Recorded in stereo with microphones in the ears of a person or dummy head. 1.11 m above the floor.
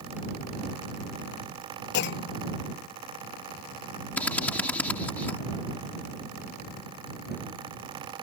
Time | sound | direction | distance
1.9 | a clunk | 65° left (ahead or behind) | ?
4.2 | a drill | 5° left (ahead or behind) | ?